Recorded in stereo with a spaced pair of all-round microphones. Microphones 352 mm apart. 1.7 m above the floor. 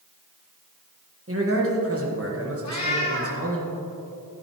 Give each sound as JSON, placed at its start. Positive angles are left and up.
{"t": 1.3, "sound": "a man speaking", "side_deg": -40, "distance_m": 1.5}
{"t": 2.6, "sound": "a cat meowing", "side_deg": 50, "distance_m": 1.6}